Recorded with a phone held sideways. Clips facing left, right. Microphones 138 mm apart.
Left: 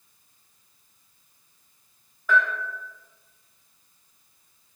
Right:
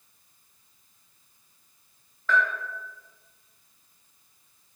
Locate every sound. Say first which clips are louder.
2.3 s a bell: left 2 dB; 10° left (ahead or behind), 0.8 m